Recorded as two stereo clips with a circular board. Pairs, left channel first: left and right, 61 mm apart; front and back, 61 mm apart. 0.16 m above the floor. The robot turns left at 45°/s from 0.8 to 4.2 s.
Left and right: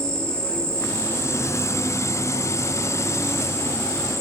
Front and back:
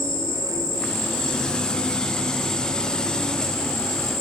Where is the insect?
165° left, 4 m; by 4.2 s 10° left, 4 m.